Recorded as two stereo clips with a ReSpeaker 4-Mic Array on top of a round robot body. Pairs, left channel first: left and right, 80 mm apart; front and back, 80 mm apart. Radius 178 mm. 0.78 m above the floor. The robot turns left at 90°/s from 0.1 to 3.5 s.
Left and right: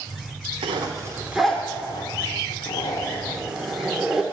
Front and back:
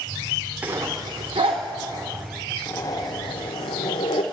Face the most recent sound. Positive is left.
turn(degrees=-5)